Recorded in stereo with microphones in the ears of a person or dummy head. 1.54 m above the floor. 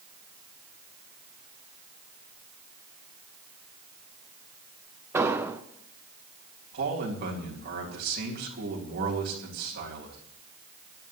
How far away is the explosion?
About 0.9 m.